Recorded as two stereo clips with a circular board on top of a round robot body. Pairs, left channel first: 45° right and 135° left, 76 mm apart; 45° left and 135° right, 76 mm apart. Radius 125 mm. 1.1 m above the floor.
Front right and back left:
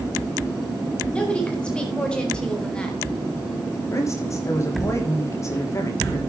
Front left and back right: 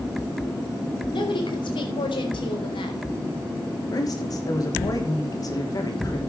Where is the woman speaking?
30° left, 5 m; by 3.0 s 35° left, 4 m.